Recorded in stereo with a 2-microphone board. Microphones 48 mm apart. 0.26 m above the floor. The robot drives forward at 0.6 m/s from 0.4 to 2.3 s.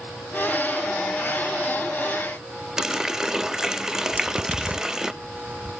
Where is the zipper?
35° right (ahead or behind), 0.8 m.